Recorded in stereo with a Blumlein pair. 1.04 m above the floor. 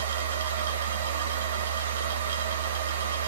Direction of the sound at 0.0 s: 60° right.